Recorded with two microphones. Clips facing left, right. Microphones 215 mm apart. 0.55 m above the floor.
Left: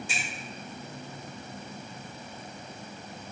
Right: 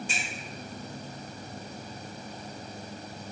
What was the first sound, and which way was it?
A finger snap, 10° left (ahead or behind).